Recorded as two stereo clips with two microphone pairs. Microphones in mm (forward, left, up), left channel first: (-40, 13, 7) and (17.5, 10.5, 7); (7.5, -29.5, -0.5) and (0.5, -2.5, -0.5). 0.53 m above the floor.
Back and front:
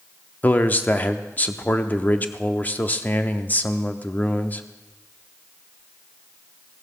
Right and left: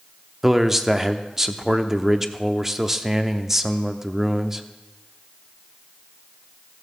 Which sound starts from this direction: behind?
A man speaking, at 0.4 s.